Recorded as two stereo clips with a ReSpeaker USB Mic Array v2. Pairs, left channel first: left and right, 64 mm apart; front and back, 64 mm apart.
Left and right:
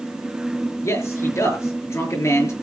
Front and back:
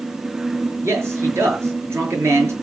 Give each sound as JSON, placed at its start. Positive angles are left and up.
{"t": 0.8, "sound": "a man speaking", "azimuth_deg": 135, "distance_m": 6.5}